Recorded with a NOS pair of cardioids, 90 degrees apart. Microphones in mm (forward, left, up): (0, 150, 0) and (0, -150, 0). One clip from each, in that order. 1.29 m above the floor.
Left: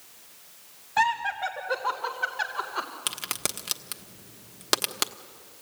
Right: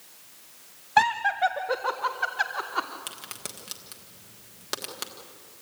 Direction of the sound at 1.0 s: 40° right.